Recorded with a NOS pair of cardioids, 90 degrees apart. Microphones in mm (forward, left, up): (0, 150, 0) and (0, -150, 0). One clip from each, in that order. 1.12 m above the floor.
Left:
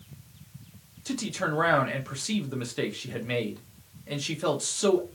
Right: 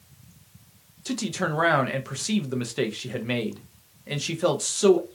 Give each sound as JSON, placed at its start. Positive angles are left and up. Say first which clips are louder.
{"t": 1.1, "sound": "a man speaking", "louder": "right 2 dB", "azimuth_deg": -15, "distance_m": 0.6}